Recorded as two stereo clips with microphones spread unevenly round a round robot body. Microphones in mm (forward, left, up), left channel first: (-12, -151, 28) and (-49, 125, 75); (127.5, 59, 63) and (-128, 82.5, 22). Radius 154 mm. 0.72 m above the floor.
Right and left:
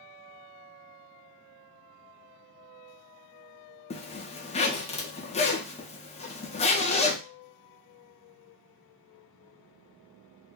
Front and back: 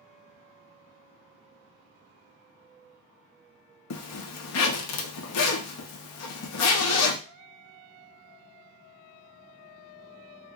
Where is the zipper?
25° right, 0.6 m.